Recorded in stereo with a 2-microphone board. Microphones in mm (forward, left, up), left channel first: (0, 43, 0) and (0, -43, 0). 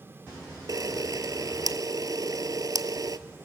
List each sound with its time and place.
0.7 s a camera shutter: 50° right (ahead or behind), 0.7 m